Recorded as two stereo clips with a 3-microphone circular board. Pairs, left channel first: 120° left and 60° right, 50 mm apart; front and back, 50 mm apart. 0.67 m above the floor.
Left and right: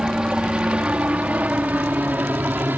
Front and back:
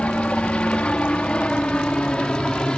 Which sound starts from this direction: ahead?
A helicopter, at 0.0 s.